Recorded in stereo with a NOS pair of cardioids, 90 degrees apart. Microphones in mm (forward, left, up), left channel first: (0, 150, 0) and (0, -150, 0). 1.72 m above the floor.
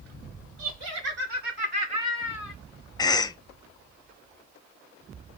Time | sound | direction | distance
0.6 | laughter | 65° right | 2 m
3.0 | a cough | 15° left | 0.7 m